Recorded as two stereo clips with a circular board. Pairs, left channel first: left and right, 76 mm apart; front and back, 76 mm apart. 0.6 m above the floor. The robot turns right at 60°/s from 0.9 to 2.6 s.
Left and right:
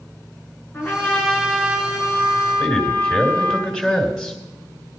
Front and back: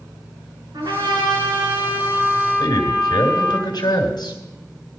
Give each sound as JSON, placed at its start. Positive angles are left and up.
{"t": 0.7, "sound": "a trumpet", "azimuth_deg": 155, "distance_m": 4.0}
{"t": 2.6, "sound": "a man speaking", "azimuth_deg": -5, "distance_m": 2.5}